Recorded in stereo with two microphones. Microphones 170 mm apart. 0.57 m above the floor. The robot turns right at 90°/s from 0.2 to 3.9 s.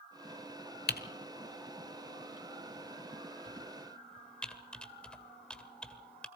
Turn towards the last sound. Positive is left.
turn(degrees=5)  # may be behind; listen again after turning